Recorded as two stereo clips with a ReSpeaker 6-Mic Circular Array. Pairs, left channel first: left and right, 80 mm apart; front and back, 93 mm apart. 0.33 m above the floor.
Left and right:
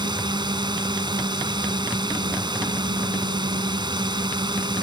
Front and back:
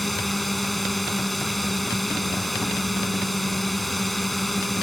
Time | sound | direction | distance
0.0 | a drone | 90° right | ?